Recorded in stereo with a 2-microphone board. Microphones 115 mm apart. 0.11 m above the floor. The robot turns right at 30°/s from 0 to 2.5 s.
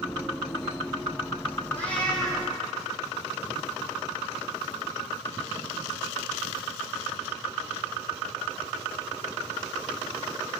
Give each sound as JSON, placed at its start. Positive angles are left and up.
{"t": 1.7, "sound": "a cat meowing", "side_deg": 15, "distance_m": 2.0}